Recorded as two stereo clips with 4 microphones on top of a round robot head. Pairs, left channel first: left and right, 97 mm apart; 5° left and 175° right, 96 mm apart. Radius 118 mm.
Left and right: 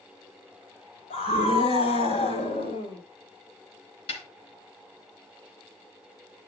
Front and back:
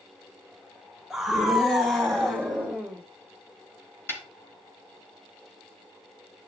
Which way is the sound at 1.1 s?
95° left.